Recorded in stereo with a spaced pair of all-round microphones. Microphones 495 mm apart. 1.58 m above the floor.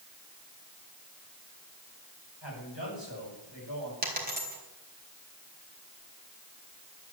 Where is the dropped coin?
20° right (ahead or behind), 4 m.